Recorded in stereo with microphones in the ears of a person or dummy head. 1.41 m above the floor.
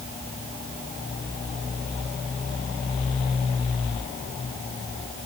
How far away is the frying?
No frying in this recording.